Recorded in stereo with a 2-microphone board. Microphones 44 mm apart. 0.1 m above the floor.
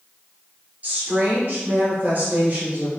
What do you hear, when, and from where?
0.8 s a woman speaking: 35° right (ahead or behind), 1.8 m